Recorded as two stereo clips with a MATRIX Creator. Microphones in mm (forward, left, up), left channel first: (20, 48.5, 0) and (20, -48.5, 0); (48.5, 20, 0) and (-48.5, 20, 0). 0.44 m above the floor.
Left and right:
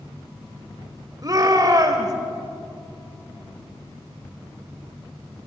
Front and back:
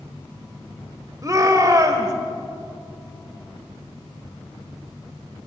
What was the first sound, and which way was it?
A shout, 130° right.